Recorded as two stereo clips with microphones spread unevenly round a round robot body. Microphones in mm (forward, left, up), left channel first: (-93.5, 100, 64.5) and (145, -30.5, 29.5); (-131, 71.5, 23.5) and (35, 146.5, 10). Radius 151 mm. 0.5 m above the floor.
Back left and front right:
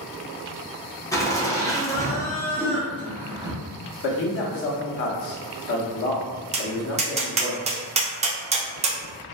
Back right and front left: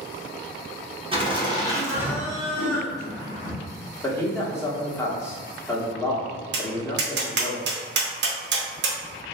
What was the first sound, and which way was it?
Laughter, 70° left.